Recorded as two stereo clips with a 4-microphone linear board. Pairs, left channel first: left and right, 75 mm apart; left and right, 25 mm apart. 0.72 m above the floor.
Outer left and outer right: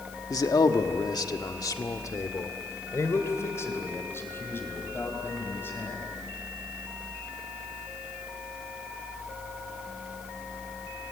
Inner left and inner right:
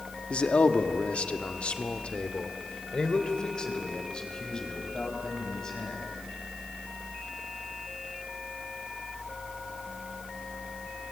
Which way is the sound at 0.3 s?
50° left (ahead or behind).